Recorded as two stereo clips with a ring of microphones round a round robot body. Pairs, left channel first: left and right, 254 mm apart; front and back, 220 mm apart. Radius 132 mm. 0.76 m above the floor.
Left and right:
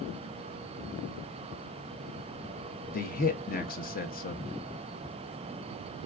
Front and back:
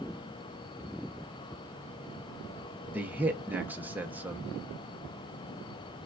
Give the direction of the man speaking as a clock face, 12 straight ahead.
9 o'clock.